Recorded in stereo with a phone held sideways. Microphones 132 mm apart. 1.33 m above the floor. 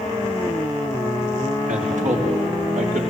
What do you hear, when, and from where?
1.7 s a man speaking: 75° right (ahead or behind), 4 m; by 3.0 s 85° right, 4 m